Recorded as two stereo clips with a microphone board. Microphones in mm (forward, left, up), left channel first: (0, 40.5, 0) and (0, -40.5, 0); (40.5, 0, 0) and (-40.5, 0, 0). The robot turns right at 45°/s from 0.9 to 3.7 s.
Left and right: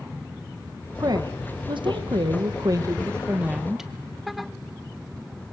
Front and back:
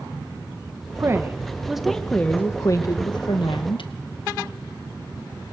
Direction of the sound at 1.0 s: 130° right.